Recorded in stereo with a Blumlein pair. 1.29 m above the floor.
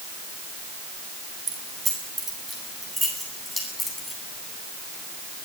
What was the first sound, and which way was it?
Keys jangling, 20° right.